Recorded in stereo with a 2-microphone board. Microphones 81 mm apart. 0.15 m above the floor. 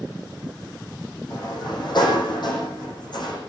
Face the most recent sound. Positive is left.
turn(degrees=65)  # may be behind; listen again after turning